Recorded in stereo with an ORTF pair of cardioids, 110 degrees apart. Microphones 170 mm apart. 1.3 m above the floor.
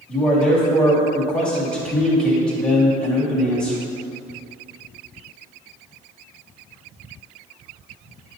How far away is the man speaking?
About 2.5 m.